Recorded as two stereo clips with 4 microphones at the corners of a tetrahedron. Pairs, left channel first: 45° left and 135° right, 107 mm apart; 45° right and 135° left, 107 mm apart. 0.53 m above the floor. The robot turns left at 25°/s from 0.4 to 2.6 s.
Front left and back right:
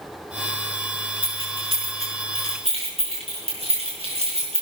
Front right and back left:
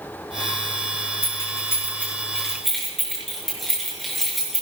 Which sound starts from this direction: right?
Keys jangling, at 1.2 s.